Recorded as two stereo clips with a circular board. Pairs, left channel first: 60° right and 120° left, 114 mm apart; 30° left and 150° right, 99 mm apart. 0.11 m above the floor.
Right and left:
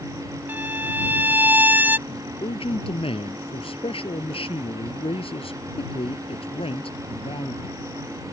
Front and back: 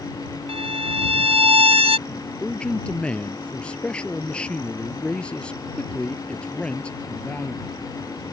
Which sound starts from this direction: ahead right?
A man speaking, at 2.1 s.